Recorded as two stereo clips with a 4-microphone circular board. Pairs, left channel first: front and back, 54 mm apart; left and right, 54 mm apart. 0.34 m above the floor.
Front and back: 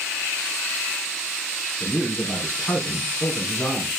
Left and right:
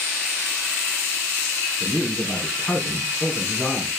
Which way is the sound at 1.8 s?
40° left.